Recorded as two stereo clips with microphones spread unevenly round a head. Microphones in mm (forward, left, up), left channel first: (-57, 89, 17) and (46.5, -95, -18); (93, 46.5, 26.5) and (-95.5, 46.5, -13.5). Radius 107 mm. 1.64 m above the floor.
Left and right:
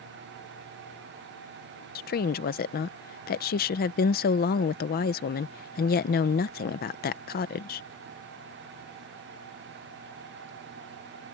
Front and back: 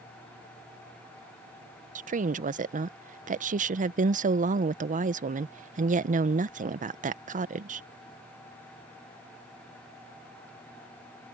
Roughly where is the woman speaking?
Behind left.